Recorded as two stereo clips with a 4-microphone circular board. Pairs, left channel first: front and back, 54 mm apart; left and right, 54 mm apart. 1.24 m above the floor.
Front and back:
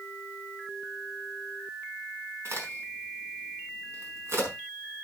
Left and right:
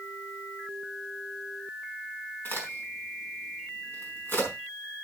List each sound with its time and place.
2.5 s a crack: 140° left, 5.5 m